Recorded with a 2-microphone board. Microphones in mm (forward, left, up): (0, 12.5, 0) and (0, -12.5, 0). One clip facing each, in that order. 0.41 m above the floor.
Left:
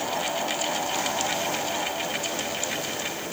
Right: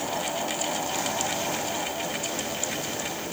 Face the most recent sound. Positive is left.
No sound to turn to.